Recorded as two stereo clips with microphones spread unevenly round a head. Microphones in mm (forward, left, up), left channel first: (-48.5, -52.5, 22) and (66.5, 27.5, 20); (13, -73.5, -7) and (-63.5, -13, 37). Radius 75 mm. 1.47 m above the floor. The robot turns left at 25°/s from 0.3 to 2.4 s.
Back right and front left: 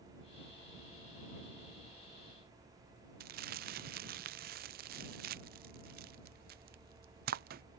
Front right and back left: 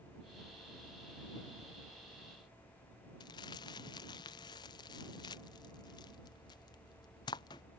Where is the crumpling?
15° left.